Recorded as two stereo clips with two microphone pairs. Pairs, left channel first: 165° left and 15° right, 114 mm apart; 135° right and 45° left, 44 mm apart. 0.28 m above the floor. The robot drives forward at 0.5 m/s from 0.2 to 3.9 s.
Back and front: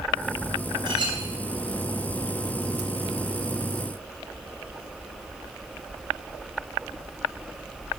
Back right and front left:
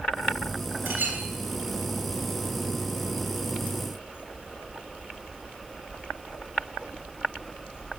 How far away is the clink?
About 2.5 m.